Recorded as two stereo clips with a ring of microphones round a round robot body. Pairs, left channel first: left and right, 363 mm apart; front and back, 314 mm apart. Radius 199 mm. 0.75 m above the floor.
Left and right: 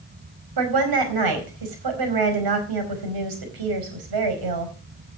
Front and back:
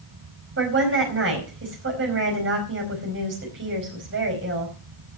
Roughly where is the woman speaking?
Behind right.